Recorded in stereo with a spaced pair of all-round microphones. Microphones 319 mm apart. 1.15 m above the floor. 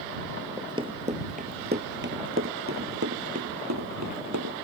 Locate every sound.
0.6 s running footsteps: 10° right (ahead or behind); by 4.6 s 60° right (ahead or behind)